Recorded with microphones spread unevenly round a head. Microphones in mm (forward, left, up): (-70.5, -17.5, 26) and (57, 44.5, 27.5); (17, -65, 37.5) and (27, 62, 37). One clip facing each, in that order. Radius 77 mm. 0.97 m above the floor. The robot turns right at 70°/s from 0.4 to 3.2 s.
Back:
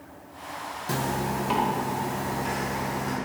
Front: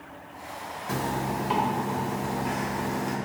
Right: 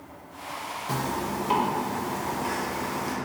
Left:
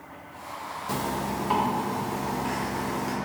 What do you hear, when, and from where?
0.9 s a zipper: 165° left, 1.1 m; by 3.2 s 35° right, 1.1 m